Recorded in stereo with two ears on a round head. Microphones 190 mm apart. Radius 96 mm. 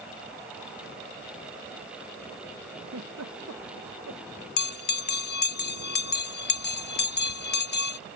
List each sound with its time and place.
2.8 s a giggle: 75° right (ahead or behind)
4.6 s a bell: 50° left (ahead or behind)